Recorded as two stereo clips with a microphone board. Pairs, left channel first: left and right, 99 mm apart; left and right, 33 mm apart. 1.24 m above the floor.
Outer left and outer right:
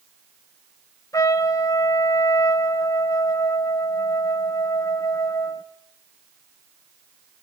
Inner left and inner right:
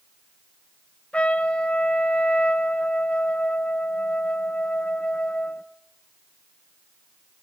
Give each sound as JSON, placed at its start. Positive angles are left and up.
{"t": 1.1, "sound": "a trumpet", "side_deg": 35, "distance_m": 0.5}